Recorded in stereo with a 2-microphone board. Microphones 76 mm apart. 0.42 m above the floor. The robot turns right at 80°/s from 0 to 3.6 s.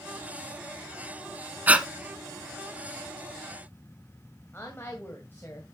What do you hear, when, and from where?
1.7 s breathing: 25° right (ahead or behind), 0.7 m; by 1.9 s 10° right (ahead or behind), 0.7 m
4.5 s a woman speaking: 25° left (ahead or behind), 2 m